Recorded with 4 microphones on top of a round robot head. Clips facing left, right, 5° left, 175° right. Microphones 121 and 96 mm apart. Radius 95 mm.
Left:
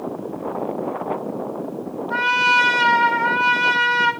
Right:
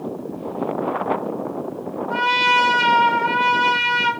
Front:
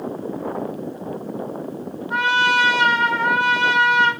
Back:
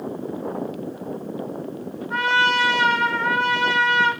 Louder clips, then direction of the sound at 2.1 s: Right 1 dB, front 2 dB; 40° right.